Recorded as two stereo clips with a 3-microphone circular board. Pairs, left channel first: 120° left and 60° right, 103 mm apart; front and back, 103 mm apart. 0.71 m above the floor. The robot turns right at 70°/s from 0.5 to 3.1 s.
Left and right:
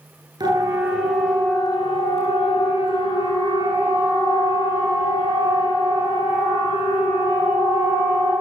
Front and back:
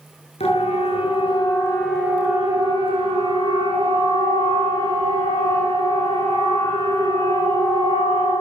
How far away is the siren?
About 9 m.